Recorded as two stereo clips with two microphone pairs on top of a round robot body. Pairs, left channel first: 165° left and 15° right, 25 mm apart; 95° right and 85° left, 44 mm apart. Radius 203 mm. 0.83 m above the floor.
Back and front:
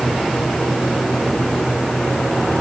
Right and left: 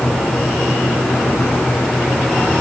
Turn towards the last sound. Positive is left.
No sound to turn to.